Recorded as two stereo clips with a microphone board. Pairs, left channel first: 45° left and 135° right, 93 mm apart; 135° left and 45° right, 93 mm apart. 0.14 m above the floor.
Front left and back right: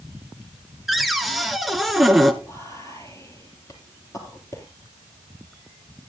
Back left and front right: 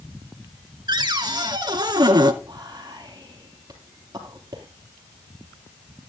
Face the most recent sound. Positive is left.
turn(degrees=0)